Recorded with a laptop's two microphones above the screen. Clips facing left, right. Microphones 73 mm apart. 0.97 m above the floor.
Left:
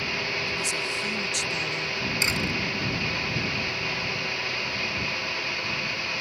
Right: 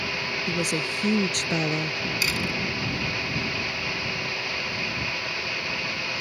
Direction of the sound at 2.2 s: 25° left (ahead or behind).